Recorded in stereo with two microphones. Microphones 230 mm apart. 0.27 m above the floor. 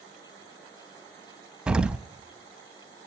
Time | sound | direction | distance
1.7 | an explosion | 5° right (ahead or behind) | 0.6 m